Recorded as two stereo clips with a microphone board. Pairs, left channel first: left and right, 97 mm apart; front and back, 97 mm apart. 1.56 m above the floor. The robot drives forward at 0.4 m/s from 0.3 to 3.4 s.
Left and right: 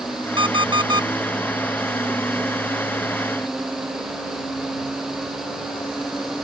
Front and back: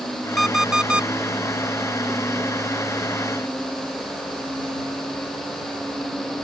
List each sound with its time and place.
0.4 s an alarm clock: 90° right; by 1.1 s 105° right